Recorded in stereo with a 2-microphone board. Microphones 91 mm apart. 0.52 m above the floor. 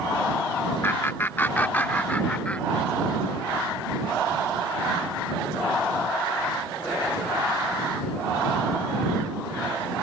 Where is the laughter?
25° left (ahead or behind); by 3.2 s 10° left (ahead or behind).